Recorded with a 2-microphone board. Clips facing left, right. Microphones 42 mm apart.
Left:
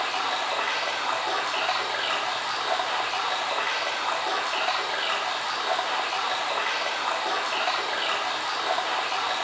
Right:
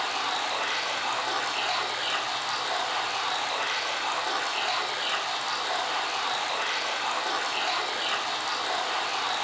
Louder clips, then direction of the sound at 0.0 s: Left 2 dB; 20° left (ahead or behind).